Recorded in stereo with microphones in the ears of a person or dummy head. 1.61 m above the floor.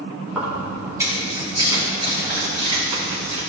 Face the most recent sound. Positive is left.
turn(degrees=-45)  # may be behind; listen again after turning